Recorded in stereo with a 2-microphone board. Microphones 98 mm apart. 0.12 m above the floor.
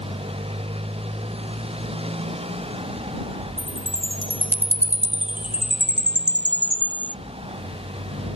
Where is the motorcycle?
85° right.